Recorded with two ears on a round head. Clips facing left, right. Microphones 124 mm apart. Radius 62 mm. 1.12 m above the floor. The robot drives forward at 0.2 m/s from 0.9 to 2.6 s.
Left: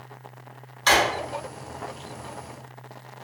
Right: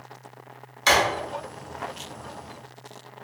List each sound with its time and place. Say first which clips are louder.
0.9 s a drawer: even; 15° right (ahead or behind), 0.9 m